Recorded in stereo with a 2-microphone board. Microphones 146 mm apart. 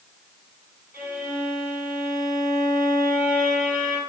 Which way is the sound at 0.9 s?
15° right (ahead or behind).